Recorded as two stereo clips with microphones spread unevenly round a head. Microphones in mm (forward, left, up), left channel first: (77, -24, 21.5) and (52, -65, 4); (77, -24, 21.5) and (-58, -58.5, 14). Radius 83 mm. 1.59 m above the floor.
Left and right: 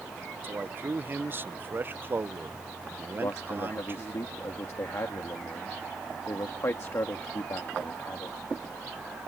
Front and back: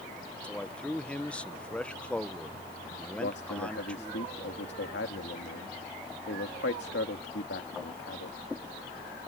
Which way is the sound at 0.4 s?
65° right.